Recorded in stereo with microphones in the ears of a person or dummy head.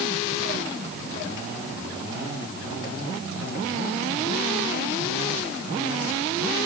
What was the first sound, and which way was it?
Only background noise.